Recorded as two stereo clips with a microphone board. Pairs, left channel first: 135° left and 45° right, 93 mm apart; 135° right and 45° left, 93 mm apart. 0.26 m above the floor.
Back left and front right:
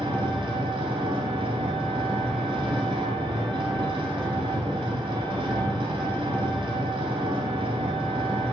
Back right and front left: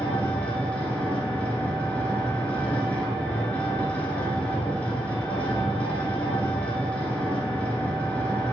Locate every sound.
0.0 s an engine running: 60° right, 1.2 m